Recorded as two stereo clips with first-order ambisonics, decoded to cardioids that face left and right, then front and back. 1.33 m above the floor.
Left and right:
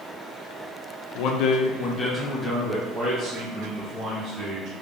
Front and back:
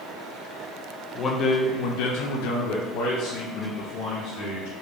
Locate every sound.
1.1 s a man speaking: 65° left, 0.6 m; by 4.7 s 25° right, 1.8 m